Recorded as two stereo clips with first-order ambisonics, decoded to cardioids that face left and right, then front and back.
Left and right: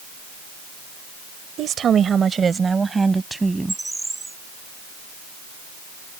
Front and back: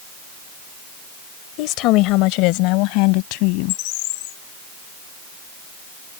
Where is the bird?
10° right.